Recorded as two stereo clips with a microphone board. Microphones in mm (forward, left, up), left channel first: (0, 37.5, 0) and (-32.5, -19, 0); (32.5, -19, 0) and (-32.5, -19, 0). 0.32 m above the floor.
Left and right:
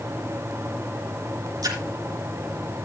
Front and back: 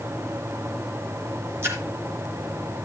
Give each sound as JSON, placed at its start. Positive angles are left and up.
{"t": 1.6, "sound": "a splash", "azimuth_deg": -130, "distance_m": 3.5}